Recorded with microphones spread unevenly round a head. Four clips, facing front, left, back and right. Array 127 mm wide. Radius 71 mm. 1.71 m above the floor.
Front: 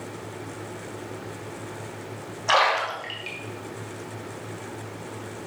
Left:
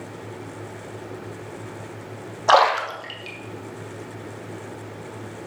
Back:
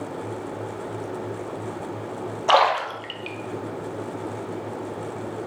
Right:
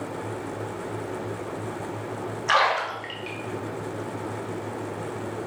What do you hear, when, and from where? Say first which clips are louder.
2.5 s a splash: left 6 dB, back 3 dB; 120° left, 0.7 m